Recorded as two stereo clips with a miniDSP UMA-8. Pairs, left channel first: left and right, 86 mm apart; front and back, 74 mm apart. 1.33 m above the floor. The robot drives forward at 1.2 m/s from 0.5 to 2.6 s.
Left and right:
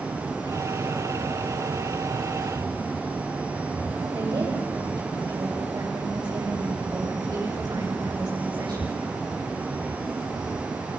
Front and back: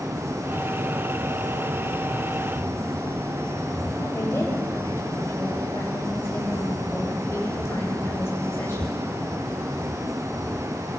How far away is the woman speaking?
About 8 m.